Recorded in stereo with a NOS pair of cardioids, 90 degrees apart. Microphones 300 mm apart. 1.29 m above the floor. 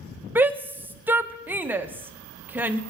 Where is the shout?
5° right, 0.8 m.